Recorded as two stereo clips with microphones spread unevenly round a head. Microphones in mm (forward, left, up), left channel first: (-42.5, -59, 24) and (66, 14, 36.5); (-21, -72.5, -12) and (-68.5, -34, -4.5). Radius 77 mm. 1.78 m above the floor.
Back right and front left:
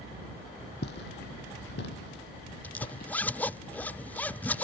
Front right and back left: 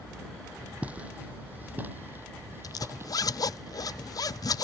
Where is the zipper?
65° right.